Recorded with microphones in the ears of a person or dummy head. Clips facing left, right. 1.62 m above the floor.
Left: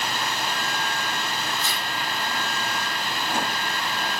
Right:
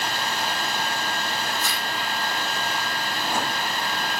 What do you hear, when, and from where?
1.6 s tearing paper: 50° right (ahead or behind), 9 m